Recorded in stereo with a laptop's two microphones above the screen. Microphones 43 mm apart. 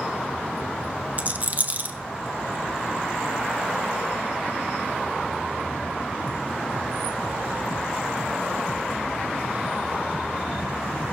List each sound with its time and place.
1.2 s a rattle: 40° right (ahead or behind), 0.8 m